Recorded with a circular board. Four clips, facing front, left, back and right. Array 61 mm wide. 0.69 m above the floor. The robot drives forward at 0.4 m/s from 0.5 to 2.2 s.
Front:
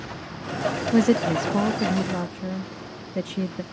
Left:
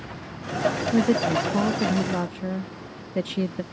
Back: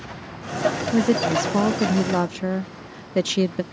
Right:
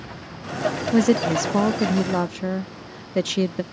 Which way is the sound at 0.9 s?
65° right.